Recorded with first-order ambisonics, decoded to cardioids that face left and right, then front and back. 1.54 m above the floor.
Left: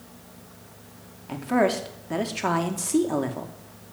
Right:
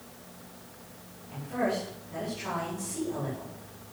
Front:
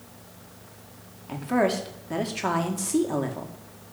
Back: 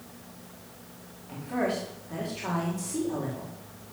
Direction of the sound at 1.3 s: 60° left.